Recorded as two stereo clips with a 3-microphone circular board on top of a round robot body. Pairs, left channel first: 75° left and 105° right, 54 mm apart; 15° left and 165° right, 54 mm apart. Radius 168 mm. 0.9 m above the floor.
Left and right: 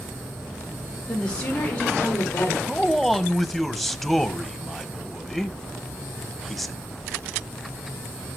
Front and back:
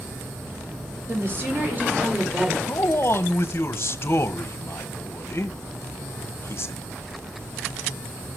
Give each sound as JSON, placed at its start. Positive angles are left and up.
{"t": 1.1, "sound": "a woman speaking", "azimuth_deg": 150, "distance_m": 3.5}
{"t": 2.7, "sound": "a man speaking", "azimuth_deg": -15, "distance_m": 1.2}